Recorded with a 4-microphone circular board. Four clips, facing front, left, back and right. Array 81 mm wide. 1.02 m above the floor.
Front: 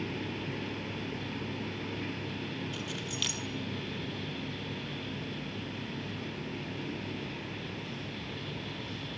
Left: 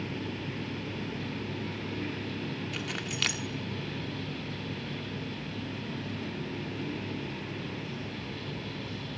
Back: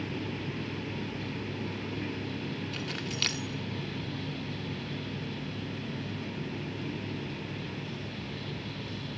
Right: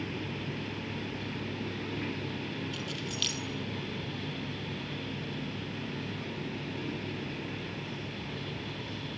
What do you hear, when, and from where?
2.7 s keys jangling: 115° left, 1.6 m